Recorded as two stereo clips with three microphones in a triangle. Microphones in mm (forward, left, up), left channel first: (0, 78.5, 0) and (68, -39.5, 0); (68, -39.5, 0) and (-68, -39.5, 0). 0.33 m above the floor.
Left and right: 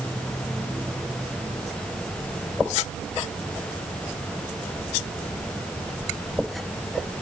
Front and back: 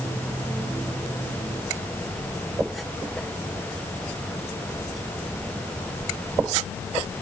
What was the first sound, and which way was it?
Only background noise.